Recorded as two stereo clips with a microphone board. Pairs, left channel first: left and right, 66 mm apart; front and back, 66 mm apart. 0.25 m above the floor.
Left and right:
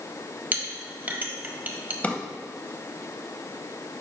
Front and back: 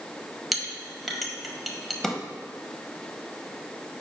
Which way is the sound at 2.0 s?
80° left.